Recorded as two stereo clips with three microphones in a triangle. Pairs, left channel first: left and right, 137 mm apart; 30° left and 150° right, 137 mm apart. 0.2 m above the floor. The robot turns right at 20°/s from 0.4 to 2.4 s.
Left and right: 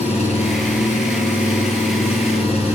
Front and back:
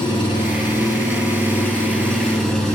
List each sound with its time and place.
0.0 s an engine running: 75° left, 2.5 m; by 2.8 s 115° left, 2.5 m